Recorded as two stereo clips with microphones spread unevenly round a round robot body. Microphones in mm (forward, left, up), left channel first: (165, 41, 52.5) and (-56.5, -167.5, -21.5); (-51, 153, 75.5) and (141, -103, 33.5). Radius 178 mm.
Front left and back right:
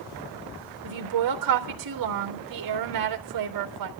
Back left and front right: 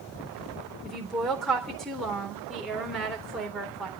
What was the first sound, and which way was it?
A woman speaking, 140° right.